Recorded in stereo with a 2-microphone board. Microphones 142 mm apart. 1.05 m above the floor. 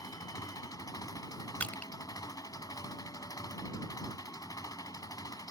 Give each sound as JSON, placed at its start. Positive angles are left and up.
{"t": 0.0, "sound": "an engine running", "side_deg": 25}
{"t": 1.6, "sound": "crushing", "side_deg": 10}